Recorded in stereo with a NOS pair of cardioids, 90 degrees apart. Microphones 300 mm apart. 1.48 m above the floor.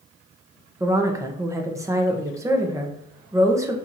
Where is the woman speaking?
10° right, 1.0 m.